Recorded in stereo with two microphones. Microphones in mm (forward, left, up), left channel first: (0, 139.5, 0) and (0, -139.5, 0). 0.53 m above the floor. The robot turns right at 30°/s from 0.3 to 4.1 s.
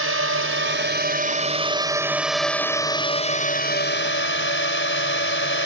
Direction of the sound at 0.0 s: 60° right.